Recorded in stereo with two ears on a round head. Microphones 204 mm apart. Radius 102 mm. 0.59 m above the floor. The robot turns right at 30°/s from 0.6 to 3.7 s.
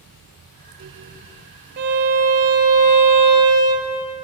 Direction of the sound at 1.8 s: 130° right.